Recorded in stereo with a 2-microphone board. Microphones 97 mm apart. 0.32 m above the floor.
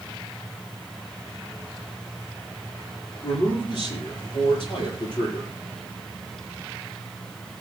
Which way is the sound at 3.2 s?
70° left (ahead or behind).